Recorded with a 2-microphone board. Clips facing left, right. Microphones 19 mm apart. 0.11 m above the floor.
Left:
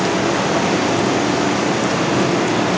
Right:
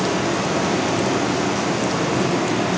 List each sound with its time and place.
0.0 s running water: 40° left (ahead or behind), 3 m